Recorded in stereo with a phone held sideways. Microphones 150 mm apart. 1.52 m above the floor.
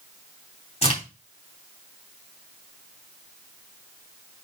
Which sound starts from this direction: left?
A crack, at 0.8 s.